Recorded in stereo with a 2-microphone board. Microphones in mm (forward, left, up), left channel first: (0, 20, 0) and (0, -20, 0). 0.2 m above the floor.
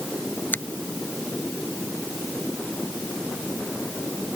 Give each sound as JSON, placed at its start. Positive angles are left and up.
{"t": 0.5, "sound": "a finger snap", "side_deg": 55}